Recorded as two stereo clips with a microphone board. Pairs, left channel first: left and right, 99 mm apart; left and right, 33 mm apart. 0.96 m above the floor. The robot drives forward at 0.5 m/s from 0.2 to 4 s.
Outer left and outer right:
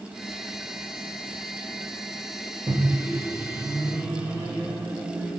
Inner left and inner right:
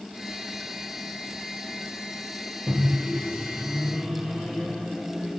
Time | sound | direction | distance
2.7 | a microwave | 30° right (ahead or behind) | 1.0 m